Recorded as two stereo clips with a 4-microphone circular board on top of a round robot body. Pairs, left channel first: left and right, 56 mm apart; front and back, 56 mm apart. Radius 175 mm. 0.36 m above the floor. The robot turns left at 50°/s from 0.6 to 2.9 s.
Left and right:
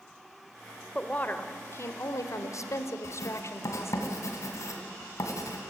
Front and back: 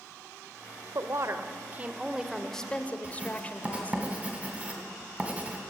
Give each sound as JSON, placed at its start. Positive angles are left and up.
{"t": 0.9, "sound": "a woman speaking", "azimuth_deg": 160, "distance_m": 1.8}
{"t": 3.0, "sound": "writing", "azimuth_deg": 115, "distance_m": 2.5}